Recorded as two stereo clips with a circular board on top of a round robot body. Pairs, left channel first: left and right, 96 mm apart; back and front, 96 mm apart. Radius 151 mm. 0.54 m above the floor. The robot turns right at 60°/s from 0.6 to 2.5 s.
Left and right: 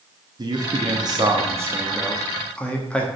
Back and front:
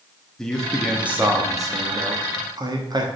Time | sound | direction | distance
0.4 | a man speaking | 100° right | 1.5 m